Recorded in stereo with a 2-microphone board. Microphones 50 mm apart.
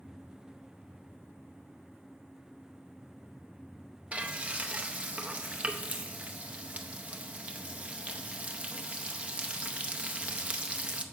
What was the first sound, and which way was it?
Frying, 25° right (ahead or behind).